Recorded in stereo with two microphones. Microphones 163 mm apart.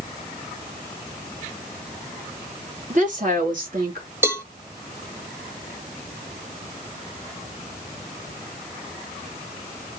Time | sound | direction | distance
2.9 | a woman speaking | 50° right (ahead or behind) | 3.5 m
4.2 | a cowbell | 15° right (ahead or behind) | 1.0 m